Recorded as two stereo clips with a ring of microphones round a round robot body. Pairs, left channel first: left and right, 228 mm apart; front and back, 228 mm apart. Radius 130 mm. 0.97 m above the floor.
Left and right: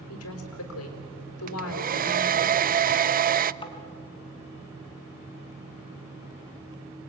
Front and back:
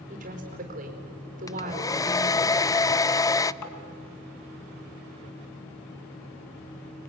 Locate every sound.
0.1 s a woman speaking: 120° left, 4 m
1.5 s a hair dryer: 70° right, 0.6 m
3.6 s tapping: 20° left, 3 m